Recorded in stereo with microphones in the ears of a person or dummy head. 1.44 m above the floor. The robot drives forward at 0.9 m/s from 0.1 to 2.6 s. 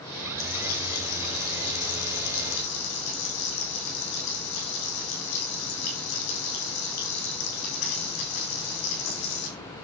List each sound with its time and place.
0.4 s frying: 70° left (ahead or behind), 5 m; by 9.5 s 85° left, 5 m